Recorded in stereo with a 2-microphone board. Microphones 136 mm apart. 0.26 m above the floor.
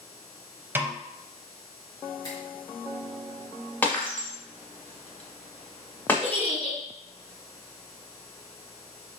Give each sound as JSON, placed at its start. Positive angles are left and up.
{"t": 0.8, "sound": "a snare drum", "side_deg": -15, "distance_m": 0.6}
{"t": 2.2, "sound": "a finger snap", "side_deg": 30, "distance_m": 1.7}
{"t": 3.8, "sound": "breaking glass", "side_deg": 15, "distance_m": 1.1}
{"t": 6.2, "sound": "a giggle", "side_deg": -30, "distance_m": 1.9}